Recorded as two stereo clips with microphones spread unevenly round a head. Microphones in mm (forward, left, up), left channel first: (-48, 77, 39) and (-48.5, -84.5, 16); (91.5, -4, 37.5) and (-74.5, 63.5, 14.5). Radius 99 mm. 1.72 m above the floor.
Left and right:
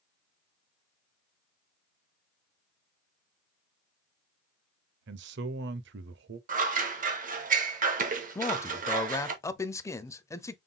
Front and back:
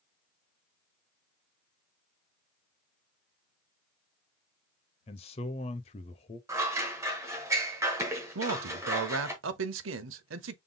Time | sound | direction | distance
5.1 | a man speaking | 80° right | 0.6 m
6.5 | scissors | 125° right | 1.1 m
8.3 | a man speaking | 160° left | 0.7 m